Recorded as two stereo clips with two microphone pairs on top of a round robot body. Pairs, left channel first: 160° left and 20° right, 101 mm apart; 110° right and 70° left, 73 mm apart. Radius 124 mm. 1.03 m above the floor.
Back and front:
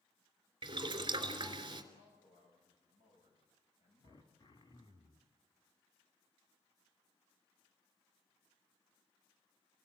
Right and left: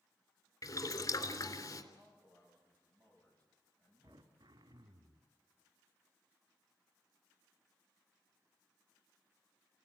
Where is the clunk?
No clunk in this recording.